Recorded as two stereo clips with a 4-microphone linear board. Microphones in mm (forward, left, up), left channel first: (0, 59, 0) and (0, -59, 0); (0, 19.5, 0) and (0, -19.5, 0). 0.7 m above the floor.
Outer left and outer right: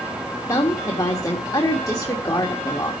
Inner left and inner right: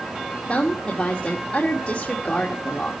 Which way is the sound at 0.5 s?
30° left (ahead or behind).